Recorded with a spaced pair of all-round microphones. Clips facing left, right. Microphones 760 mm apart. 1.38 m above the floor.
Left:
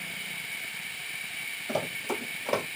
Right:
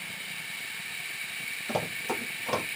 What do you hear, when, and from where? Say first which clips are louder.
1.7 s running footsteps: left 1 dB; 30° right (ahead or behind), 1.6 m; by 2.8 s 25° right (ahead or behind), 1.5 m